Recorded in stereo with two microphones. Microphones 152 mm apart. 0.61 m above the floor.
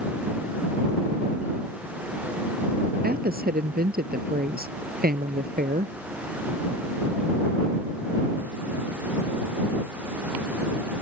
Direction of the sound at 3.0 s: 80° right.